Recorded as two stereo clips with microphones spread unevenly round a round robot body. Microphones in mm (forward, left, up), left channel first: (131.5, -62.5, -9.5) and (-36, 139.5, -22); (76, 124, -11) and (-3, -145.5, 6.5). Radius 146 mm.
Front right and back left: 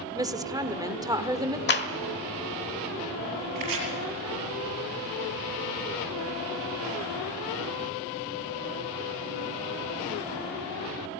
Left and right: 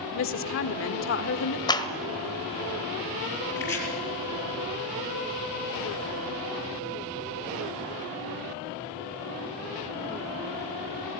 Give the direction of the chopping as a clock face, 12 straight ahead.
7 o'clock.